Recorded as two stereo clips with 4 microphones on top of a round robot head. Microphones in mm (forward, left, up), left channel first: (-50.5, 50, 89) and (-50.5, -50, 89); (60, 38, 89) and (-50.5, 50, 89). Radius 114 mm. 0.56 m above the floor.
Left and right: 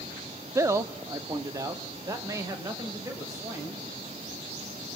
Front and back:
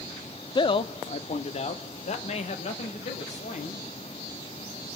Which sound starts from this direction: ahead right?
A man speaking, at 0.6 s.